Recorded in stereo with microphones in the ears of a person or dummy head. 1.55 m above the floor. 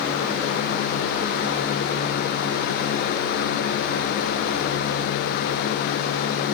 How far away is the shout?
I don't hear a shout.